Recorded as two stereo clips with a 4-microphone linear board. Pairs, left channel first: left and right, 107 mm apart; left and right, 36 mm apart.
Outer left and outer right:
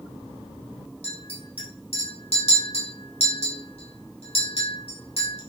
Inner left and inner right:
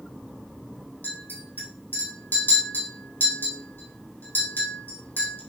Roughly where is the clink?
Left.